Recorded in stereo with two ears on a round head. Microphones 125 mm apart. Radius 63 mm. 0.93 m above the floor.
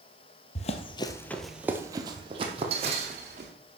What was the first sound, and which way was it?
Running footsteps, 50° left (ahead or behind).